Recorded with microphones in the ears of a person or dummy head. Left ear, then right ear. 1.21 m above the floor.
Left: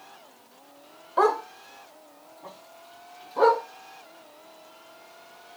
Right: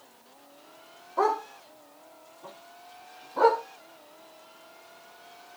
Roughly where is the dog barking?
Left.